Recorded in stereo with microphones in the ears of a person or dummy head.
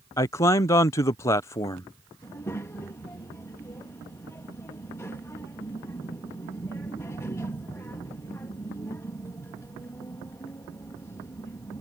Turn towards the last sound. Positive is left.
turn(degrees=15)  # may be behind; listen again after turning